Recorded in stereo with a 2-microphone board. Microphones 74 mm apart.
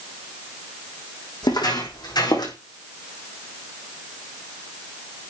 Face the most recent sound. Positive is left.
turn(degrees=70)  # may be behind; listen again after turning